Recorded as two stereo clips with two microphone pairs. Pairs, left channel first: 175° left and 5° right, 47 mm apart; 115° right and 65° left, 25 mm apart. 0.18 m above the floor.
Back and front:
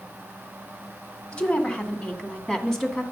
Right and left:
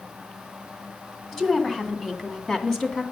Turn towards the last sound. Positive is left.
turn(degrees=-110)